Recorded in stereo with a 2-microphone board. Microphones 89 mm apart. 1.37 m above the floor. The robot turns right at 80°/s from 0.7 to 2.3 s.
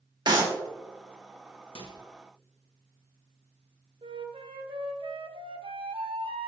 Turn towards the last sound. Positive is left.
turn(degrees=-85)